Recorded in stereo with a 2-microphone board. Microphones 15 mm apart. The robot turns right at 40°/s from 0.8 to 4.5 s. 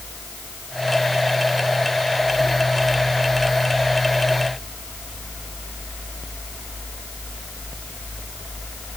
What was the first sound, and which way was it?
Only background noise.